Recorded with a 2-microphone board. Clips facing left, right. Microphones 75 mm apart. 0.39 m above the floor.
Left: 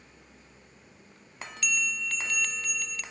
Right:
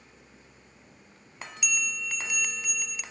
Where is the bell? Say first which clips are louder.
Left 2 dB; 10° right (ahead or behind), 1.0 m.